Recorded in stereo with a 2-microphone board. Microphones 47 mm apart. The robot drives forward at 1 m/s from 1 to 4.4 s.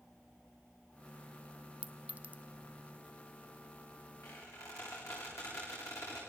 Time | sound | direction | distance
1.8 | a clink | 25° right (ahead or behind) | 0.8 m
4.2 | a squeak | 80° left | 9 m